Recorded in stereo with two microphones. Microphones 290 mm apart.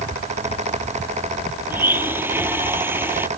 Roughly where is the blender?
Centre.